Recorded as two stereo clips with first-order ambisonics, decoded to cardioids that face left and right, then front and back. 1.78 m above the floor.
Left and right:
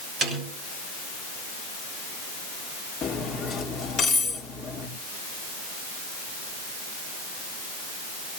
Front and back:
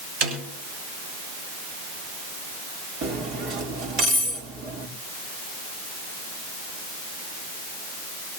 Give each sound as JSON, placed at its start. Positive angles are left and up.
{"t": 0.2, "sound": "a snare drum", "azimuth_deg": -165, "distance_m": 7.0}
{"t": 3.0, "sound": "cutlery clinking", "azimuth_deg": 150, "distance_m": 2.5}